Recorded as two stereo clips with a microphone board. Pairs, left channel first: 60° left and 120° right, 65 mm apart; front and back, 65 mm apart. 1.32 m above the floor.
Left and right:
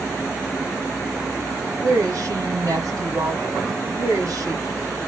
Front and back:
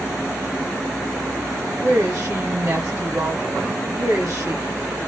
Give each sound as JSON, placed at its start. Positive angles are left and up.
{"t": 1.8, "sound": "a woman speaking", "azimuth_deg": -145, "distance_m": 2.5}